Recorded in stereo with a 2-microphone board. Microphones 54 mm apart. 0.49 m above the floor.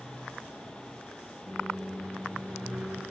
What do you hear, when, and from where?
1.5 s a microwave: 30° right (ahead or behind), 2.5 m